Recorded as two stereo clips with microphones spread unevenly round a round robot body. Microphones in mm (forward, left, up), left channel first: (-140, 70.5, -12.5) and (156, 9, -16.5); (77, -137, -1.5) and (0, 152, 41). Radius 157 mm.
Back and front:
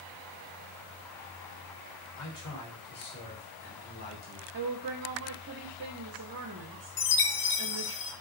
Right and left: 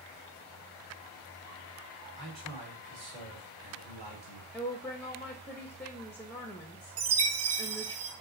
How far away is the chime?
About 0.6 m.